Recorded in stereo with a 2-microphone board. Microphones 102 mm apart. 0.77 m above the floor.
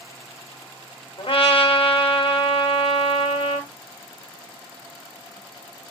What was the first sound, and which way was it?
A trumpet, 65° left (ahead or behind).